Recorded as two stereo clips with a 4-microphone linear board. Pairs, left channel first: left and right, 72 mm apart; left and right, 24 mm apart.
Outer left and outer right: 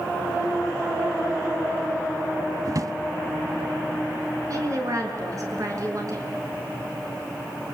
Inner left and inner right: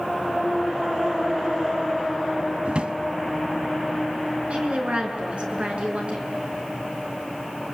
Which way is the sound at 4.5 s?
50° right (ahead or behind).